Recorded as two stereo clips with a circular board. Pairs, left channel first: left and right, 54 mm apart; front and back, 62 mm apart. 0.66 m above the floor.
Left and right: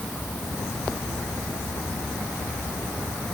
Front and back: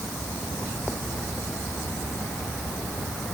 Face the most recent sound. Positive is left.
No sound to turn to.